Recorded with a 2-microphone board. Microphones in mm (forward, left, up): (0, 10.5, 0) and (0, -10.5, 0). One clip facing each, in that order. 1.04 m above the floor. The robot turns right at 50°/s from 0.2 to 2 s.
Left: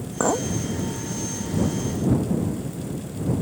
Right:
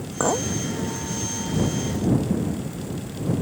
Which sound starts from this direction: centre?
A clink, at 0.2 s.